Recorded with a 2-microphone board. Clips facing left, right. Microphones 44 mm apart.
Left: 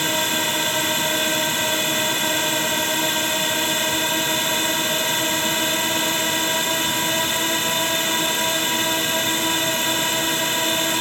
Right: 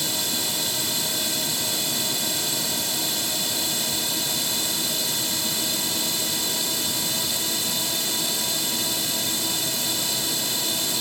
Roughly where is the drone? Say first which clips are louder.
Left 7 dB; left.